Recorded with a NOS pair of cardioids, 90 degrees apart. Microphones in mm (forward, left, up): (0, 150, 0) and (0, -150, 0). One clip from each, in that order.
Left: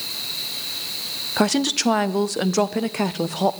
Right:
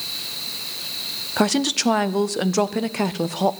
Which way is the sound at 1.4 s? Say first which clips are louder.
Even; 5° right.